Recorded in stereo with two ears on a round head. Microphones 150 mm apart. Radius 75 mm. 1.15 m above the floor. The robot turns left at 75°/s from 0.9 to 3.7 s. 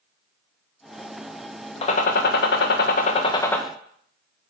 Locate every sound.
1.8 s a gunshot: 140° left, 1.0 m; by 3.6 s 5° left, 1.0 m